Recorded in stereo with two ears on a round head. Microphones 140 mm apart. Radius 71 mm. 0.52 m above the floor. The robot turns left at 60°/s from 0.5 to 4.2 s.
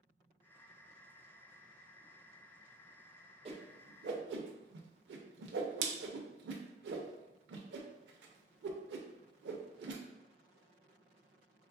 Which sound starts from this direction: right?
A whoosh, at 3.5 s.